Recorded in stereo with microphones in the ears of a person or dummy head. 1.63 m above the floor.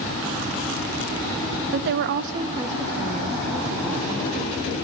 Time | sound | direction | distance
1.7 | a woman speaking | 60° right (ahead or behind) | 0.8 m